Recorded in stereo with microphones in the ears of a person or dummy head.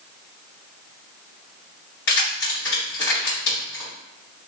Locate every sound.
2.1 s keys jangling: 60° left (ahead or behind), 2.0 m